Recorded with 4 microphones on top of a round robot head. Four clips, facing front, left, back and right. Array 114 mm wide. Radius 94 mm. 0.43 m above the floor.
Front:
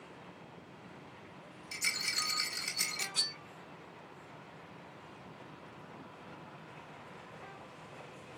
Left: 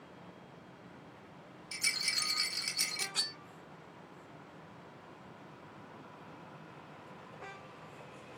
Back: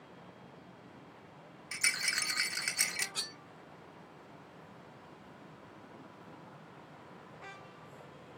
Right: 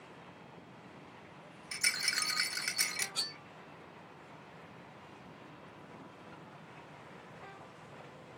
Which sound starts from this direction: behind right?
A rattle, at 1.7 s.